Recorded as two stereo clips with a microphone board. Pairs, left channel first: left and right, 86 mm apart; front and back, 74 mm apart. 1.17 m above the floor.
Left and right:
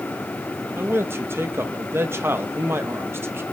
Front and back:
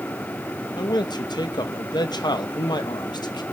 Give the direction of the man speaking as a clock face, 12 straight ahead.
1 o'clock.